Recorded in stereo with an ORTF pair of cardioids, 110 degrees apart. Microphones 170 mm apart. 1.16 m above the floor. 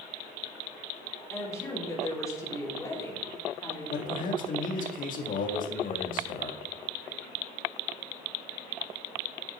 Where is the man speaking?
55° left, 1.7 m.